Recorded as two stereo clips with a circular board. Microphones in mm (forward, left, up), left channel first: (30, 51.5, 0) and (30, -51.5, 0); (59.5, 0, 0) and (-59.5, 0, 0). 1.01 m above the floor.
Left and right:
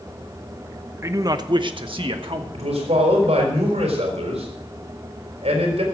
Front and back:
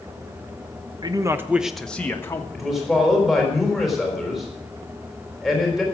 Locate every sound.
1.0 s a man speaking: 145° right, 0.9 m; by 2.4 s 65° right, 1.5 m
2.5 s a man speaking: 90° right, 4 m